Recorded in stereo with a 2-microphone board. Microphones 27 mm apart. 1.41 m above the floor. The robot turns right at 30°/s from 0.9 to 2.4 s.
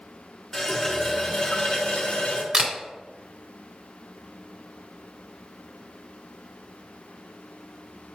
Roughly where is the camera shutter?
Right.